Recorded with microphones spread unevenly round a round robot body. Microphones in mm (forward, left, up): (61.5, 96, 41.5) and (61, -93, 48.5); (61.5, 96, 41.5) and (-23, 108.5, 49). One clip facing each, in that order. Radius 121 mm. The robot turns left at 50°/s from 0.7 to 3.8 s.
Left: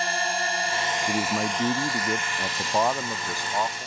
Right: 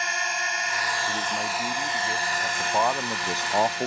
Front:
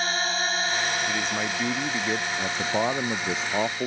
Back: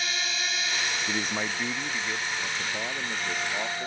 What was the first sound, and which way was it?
A drone, 35° left.